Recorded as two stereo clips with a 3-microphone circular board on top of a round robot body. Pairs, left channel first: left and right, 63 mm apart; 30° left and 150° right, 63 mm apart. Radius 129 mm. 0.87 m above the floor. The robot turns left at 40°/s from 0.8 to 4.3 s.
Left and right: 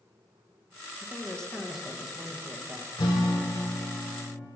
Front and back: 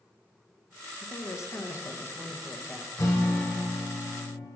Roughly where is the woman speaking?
Ahead left.